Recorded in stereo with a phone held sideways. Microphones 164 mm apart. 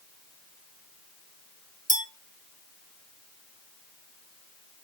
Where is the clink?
50° right (ahead or behind), 1.0 m.